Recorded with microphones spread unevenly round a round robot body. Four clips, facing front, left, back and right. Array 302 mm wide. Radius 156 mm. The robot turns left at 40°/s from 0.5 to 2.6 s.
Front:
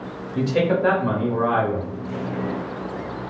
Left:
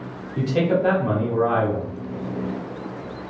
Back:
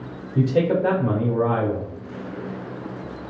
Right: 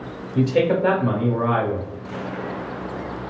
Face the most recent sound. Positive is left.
turn(degrees=170)